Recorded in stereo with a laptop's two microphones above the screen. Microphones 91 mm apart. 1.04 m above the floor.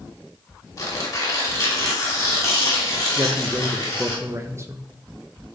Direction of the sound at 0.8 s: 35° left (ahead or behind).